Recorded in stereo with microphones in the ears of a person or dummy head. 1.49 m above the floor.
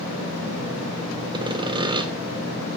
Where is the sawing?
20° right (ahead or behind), 0.5 m.